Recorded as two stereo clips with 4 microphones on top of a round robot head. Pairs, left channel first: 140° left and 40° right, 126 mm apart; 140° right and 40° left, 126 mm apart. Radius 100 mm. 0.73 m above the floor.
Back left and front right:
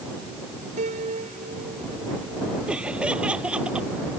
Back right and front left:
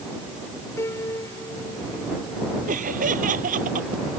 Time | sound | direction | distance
0.8 | a piano | 70° right | ?
2.7 | laughter | 40° left | ?